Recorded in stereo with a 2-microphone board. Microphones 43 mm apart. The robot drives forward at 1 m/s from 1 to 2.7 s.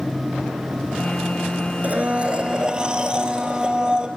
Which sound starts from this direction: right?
A blender, at 1.8 s.